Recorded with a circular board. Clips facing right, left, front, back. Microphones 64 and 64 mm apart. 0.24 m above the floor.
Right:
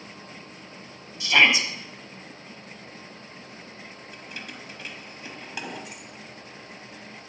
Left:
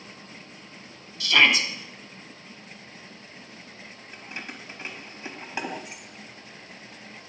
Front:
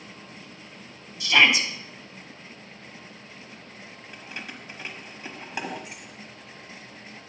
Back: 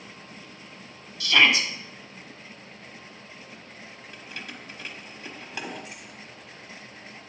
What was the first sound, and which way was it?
A shout, 50° right.